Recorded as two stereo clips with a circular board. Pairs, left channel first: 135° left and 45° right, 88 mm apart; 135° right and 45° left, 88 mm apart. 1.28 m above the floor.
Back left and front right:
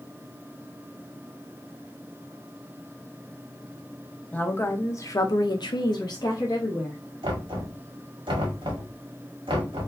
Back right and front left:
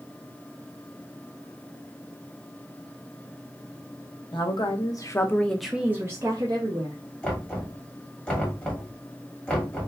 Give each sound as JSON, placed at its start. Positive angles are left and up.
{"t": 4.3, "sound": "a woman speaking", "azimuth_deg": -155, "distance_m": 1.0}
{"t": 7.2, "sound": "knocking", "azimuth_deg": -60, "distance_m": 1.6}